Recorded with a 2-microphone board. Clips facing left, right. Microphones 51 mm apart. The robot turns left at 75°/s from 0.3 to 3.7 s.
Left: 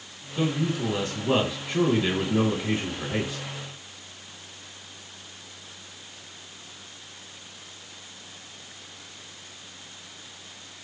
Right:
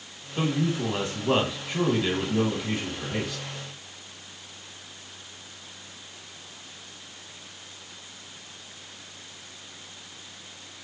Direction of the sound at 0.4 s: 25° right (ahead or behind).